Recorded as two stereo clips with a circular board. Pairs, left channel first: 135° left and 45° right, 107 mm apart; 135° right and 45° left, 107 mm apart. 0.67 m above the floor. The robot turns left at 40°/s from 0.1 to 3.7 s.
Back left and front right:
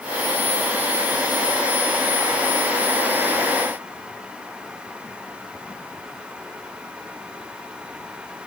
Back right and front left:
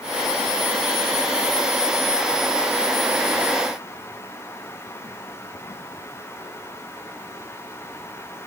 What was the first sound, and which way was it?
Only background noise.